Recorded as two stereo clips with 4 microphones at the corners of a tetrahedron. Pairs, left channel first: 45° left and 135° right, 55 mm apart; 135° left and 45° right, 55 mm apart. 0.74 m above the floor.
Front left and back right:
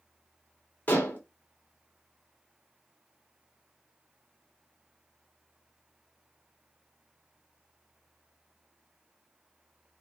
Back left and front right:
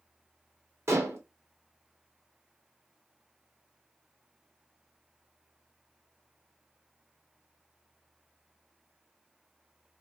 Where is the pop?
I don't hear a pop.